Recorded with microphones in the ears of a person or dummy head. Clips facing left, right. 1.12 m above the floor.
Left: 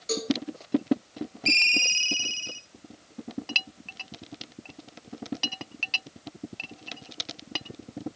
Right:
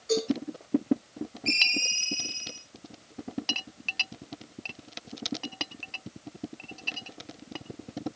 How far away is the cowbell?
About 2.5 m.